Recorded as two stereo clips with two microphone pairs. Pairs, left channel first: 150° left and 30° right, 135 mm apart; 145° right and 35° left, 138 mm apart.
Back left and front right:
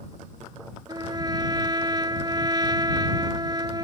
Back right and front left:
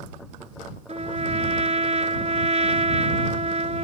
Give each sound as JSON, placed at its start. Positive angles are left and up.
{"t": 0.9, "sound": "a trumpet", "azimuth_deg": 20}